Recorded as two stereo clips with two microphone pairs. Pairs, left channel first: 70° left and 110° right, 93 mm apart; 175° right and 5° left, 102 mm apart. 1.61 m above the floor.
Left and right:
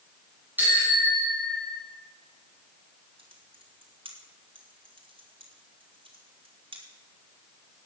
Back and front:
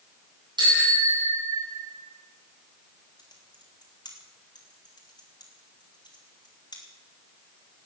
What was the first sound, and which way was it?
A bicycle bell, 40° right.